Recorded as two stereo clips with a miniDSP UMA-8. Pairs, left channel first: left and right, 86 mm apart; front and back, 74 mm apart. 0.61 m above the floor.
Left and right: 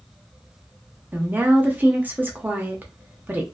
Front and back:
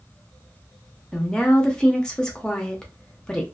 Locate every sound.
1.1 s a woman speaking: 60° right, 0.6 m